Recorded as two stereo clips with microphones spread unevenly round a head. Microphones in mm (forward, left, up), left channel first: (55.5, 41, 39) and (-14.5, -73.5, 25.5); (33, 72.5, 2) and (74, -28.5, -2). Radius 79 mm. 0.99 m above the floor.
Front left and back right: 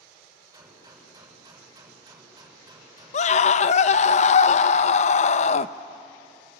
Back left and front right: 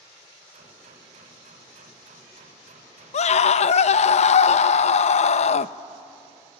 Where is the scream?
100° left, 0.7 m.